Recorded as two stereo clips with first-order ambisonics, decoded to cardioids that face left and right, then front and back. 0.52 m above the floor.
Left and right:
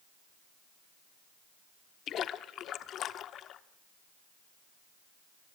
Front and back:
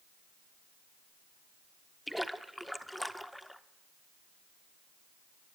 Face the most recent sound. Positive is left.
turn(degrees=90)